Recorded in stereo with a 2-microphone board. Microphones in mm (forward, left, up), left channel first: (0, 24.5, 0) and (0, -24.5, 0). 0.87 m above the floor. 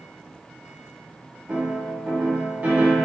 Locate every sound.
1.5 s a piano: 35° right (ahead or behind), 1.2 m